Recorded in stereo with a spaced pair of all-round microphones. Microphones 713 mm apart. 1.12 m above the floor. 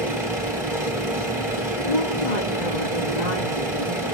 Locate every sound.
0.0 s a machine running: 5° right (ahead or behind), 1.6 m
1.9 s a woman speaking: 85° left, 1.8 m